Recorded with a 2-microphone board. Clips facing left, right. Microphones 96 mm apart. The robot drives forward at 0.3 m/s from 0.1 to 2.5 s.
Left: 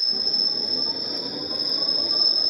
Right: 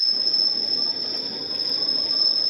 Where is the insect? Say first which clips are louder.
Left 2 dB; 60° right (ahead or behind); by 2.5 s 40° right (ahead or behind).